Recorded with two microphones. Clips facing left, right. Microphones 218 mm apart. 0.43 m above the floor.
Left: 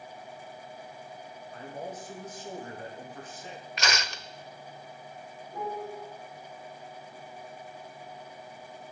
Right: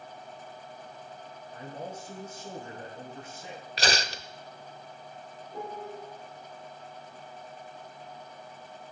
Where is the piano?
20° right (ahead or behind), 6 m.